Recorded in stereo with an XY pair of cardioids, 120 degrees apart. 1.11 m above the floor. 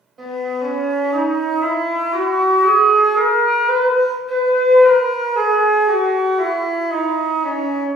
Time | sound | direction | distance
0.2 | a flute | 30° right | 1.3 m